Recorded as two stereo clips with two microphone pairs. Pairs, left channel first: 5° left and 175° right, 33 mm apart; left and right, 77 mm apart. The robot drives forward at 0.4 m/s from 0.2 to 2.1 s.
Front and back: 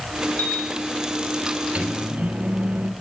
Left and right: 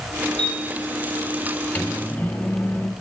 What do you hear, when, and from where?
0.4 s a piano: 15° left, 4 m
1.8 s a microwave: 150° left, 1.7 m